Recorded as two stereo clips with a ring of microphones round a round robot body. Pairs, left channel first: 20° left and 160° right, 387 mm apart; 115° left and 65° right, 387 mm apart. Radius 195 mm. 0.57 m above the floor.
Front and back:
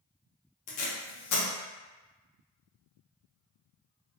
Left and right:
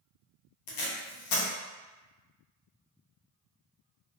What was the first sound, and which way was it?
Tape being pulled, 75° left.